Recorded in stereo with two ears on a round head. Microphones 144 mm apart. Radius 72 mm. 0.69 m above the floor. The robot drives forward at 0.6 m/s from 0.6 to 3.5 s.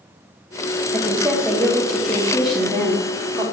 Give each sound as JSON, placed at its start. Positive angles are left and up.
{"t": 0.9, "sound": "a woman speaking", "side_deg": 0, "distance_m": 1.4}